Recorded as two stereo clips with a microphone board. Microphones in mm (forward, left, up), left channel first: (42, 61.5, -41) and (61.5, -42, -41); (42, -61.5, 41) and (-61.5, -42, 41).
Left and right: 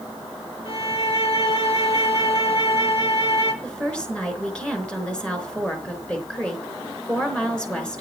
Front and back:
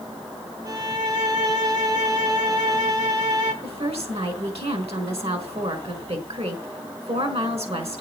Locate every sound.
0.7 s a violin: 125° left, 3 m
3.6 s a woman speaking: straight behind, 4 m